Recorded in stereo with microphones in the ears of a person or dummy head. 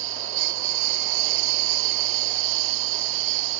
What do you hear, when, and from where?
0.0 s a lawn mower: 65° right (ahead or behind)